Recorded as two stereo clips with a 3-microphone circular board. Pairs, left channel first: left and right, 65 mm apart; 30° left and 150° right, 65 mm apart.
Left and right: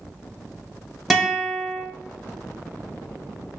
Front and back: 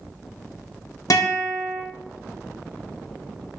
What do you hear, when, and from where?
1.1 s a guitar: 5° left, 0.6 m